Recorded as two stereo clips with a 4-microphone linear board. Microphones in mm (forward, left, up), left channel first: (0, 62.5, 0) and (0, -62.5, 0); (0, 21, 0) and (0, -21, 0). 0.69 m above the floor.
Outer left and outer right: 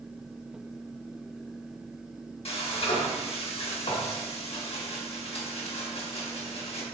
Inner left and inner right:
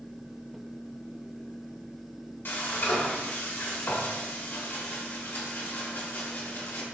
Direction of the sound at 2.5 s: 55° left (ahead or behind).